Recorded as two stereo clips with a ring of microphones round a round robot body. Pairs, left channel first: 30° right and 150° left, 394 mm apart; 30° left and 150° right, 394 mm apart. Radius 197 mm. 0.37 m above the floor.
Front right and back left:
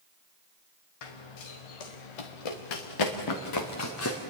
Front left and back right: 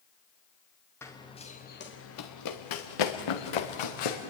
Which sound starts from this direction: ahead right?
Running footsteps, at 1.0 s.